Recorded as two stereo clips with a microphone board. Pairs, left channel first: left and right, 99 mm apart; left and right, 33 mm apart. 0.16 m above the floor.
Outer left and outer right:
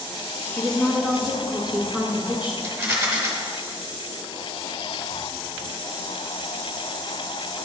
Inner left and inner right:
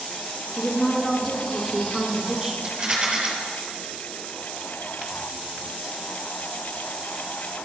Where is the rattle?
20° right (ahead or behind), 1.5 m.